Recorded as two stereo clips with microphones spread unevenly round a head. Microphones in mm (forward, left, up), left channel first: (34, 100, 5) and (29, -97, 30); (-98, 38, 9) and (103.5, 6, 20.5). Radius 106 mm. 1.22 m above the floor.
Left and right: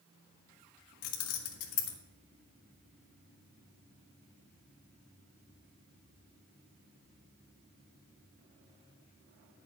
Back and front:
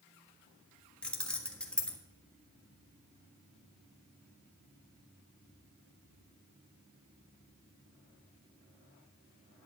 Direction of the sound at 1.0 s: 85° left.